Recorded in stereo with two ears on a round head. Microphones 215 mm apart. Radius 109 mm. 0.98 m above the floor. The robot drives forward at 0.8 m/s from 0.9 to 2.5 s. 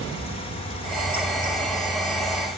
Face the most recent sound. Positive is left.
No sound to turn to.